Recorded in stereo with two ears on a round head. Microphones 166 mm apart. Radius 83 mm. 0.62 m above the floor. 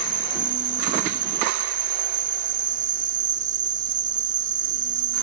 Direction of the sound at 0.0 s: 45° right (ahead or behind).